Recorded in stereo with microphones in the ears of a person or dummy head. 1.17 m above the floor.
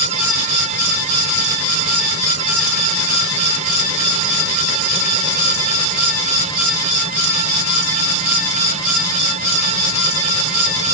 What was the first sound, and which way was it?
Only background noise.